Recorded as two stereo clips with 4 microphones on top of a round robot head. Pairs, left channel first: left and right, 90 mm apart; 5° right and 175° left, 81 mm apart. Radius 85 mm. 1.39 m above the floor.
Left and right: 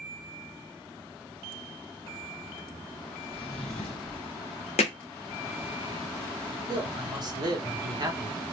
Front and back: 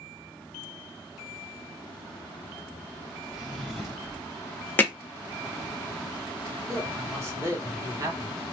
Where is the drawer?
85° left, 1.3 m.